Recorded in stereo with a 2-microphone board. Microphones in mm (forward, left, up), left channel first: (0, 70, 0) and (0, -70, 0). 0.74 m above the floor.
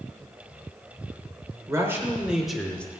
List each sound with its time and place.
1.7 s a man speaking: 25° right (ahead or behind), 3 m; by 2.9 s 15° left (ahead or behind), 2.5 m